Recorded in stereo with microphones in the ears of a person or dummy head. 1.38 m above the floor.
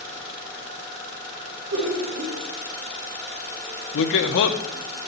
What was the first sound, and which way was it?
Laughter, 65° right (ahead or behind).